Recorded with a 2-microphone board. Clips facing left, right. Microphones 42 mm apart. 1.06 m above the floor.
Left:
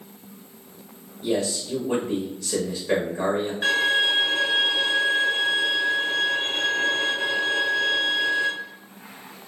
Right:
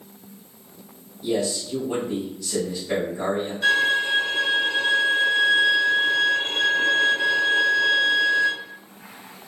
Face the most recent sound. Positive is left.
turn(degrees=35)  # may be behind; listen again after turning